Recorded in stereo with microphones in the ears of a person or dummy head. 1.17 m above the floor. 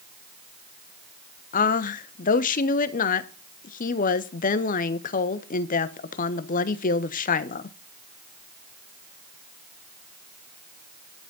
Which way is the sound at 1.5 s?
45° left (ahead or behind).